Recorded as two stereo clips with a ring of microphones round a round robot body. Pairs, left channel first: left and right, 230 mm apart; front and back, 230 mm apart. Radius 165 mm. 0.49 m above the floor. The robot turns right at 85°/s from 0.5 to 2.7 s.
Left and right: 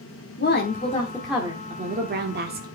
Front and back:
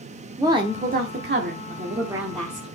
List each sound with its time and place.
0.4 s a woman speaking: 115° left, 1.1 m; by 2.7 s 65° right, 1.1 m